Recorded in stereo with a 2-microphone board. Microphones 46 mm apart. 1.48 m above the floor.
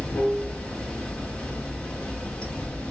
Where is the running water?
20° left (ahead or behind), 1.2 m.